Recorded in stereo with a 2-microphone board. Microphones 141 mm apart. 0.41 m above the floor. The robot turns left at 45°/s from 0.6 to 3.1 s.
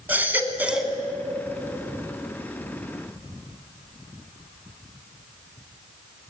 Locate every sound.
0.1 s a baby crying: 15° right (ahead or behind), 1.1 m; by 0.9 s 5° left (ahead or behind), 1.1 m